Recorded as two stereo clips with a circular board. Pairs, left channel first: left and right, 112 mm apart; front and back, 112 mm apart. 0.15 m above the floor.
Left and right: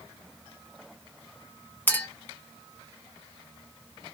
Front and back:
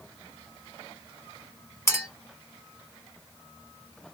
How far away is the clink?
About 0.8 m.